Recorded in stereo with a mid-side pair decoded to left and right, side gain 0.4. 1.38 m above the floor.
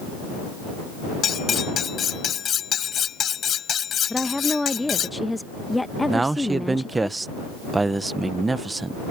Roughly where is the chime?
I don't hear a chime.